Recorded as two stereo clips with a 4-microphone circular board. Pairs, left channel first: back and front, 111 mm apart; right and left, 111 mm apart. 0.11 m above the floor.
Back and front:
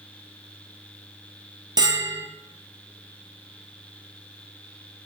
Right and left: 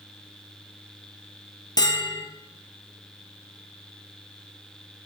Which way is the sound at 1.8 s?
40° right.